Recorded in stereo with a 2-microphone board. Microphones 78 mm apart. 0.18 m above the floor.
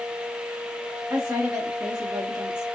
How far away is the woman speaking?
About 2 m.